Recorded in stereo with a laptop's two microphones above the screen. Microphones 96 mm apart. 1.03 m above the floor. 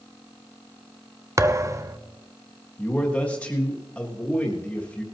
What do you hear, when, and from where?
1.4 s a thud: 35° right (ahead or behind), 0.6 m
2.8 s a man speaking: 15° left (ahead or behind), 1.5 m